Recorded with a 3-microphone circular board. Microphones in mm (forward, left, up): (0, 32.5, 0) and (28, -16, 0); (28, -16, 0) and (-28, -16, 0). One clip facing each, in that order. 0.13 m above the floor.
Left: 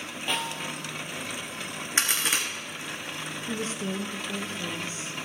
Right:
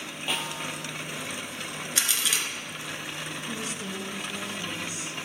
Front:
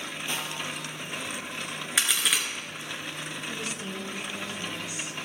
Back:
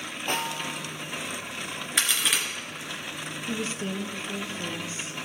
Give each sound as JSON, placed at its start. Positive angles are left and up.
{"t": 0.3, "sound": "a snare drum", "azimuth_deg": -150, "distance_m": 1.2}
{"t": 2.0, "sound": "a crack", "azimuth_deg": 90, "distance_m": 2.0}
{"t": 3.5, "sound": "a woman speaking", "azimuth_deg": 145, "distance_m": 1.3}